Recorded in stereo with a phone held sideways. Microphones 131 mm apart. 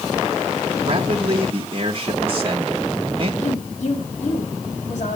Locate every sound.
0.8 s a man speaking: 40° right (ahead or behind), 1.3 m
3.4 s a woman speaking: 65° left (ahead or behind), 5 m